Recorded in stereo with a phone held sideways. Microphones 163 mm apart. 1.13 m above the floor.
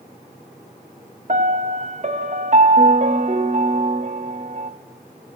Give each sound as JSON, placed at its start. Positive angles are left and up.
{"t": 1.3, "sound": "a piano", "side_deg": -45, "distance_m": 0.7}